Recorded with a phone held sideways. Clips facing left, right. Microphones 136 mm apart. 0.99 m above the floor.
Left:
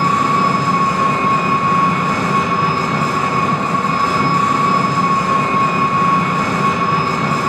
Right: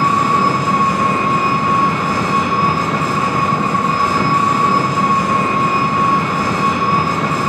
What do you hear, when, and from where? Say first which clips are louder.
0.0 s an engine running: right 1 dB; 10° right (ahead or behind), 0.8 m